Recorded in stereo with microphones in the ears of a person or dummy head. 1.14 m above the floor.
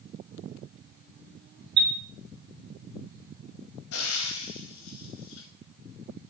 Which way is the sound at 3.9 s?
75° left (ahead or behind).